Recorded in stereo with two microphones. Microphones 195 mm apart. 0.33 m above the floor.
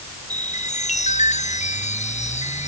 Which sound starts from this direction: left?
A chime, at 0.3 s.